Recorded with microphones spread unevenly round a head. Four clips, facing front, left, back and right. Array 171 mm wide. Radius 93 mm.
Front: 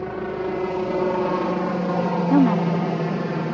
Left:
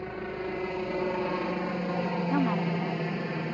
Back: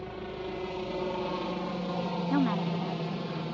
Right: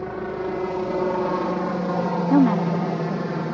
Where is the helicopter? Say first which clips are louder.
Right 7 dB, front 11 dB; 30° right; by 3.5 s 25° right.